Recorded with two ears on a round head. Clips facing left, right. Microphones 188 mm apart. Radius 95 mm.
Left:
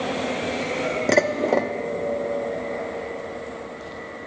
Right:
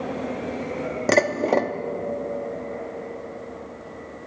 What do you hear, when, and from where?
1.1 s dishes clattering: centre (ahead or behind), 0.8 m